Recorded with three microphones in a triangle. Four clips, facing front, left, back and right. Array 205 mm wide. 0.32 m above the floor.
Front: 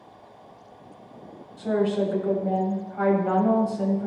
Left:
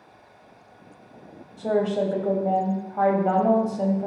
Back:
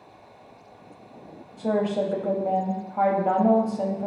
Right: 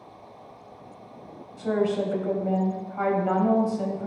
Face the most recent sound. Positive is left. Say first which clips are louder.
# left 2 dB, front 1 dB
turn(degrees=145)